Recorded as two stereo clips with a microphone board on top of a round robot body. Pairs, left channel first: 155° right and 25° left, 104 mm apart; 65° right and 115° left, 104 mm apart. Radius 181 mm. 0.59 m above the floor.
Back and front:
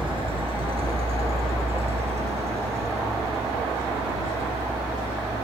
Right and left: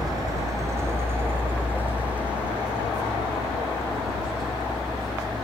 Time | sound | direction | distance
0.0 | a vehicle | 60° left | ?